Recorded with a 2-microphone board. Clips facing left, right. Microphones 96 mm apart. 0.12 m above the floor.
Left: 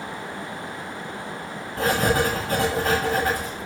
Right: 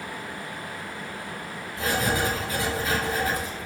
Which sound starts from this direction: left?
Writing, at 1.8 s.